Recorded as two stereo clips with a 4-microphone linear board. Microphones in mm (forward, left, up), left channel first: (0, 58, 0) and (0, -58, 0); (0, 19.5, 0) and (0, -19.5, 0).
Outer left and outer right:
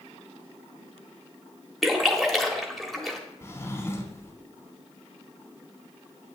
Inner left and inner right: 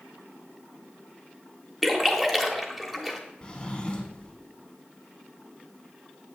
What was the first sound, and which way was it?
A splash, centre (ahead or behind).